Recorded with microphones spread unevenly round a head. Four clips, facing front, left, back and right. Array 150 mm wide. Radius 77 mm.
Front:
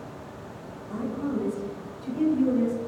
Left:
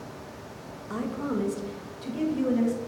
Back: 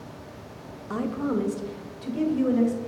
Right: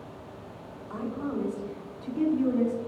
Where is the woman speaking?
135° left, 0.6 m; by 2.8 s 120° left, 1.5 m.